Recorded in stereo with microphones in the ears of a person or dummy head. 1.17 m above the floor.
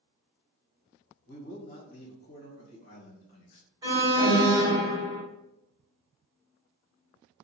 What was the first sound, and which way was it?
A man speaking, 60° left (ahead or behind).